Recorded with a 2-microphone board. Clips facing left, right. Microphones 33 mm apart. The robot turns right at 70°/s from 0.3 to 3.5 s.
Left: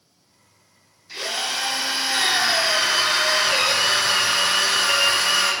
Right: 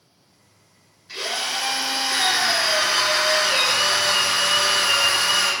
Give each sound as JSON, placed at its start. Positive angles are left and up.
{"t": 1.1, "sound": "a drill", "azimuth_deg": -40, "distance_m": 1.5}